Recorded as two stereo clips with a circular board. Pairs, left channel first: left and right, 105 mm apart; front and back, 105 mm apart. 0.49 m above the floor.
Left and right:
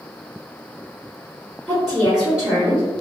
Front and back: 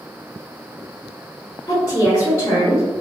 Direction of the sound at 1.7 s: 10° right.